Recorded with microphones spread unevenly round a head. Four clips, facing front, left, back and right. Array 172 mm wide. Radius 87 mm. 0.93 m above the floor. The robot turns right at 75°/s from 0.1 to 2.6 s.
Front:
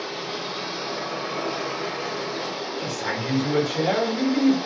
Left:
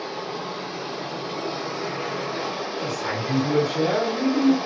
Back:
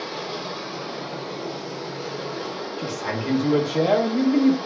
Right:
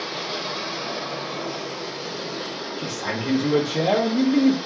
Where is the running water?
105° right, 1.4 m; by 4.7 s 80° left, 1.4 m.